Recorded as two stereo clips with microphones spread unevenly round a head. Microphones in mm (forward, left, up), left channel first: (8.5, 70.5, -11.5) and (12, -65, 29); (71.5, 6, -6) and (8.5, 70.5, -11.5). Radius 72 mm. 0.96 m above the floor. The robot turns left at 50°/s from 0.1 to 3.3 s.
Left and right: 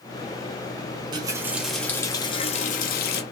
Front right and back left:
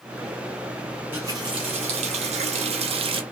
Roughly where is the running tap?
Behind right.